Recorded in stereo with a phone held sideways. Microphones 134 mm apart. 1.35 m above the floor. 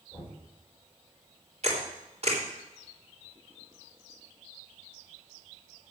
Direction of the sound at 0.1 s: 10° left (ahead or behind).